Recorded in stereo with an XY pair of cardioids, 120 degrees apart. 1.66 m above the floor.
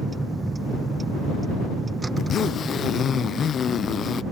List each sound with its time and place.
0.0 s a vehicle: 20° right
2.2 s a zipper: 45° left